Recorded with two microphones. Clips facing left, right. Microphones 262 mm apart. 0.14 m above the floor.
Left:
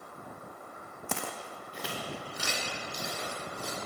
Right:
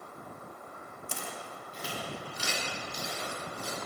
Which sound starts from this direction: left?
Footsteps, at 1.1 s.